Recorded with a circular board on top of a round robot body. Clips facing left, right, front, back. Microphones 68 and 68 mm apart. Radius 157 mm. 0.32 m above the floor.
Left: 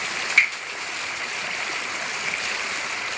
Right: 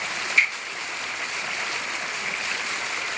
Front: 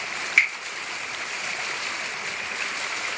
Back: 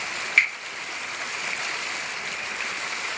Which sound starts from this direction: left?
A finger snap, at 0.4 s.